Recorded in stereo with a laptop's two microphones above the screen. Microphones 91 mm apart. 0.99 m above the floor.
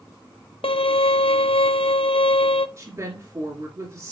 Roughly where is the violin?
Left.